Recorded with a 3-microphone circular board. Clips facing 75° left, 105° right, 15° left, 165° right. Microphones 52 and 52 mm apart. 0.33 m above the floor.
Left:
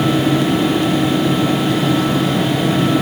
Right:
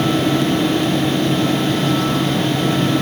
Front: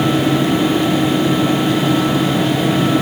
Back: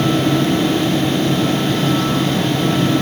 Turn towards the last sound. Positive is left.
No sound to turn to.